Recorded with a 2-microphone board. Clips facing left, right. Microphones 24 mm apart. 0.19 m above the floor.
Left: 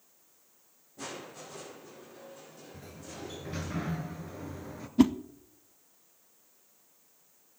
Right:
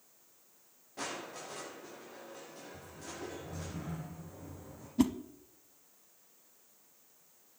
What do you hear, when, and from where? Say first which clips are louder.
1.0 s crushing: right 1 dB; 80° right, 8.5 m
2.7 s a sliding door: left 2 dB; 60° left (ahead or behind), 1.9 m
5.0 s a whoosh: left 6 dB; 20° left (ahead or behind), 0.6 m